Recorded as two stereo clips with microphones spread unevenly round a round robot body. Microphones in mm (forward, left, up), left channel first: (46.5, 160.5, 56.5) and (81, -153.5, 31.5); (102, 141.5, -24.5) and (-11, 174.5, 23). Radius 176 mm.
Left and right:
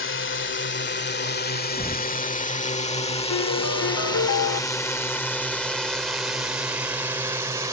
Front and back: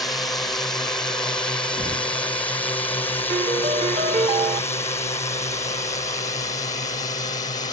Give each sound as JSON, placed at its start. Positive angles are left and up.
{"t": 0.0, "sound": "a drone", "azimuth_deg": 55}
{"t": 1.8, "sound": "knocking", "azimuth_deg": 180}
{"t": 3.3, "sound": "a piano", "azimuth_deg": 125}